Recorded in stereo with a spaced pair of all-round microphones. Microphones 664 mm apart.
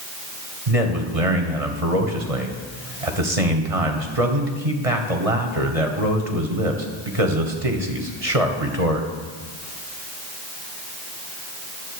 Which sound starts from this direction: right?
A man speaking, at 0.7 s.